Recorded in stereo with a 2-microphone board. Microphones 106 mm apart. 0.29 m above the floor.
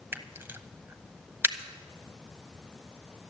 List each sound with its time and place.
0.1 s a camera shutter: 20° right (ahead or behind), 1.0 m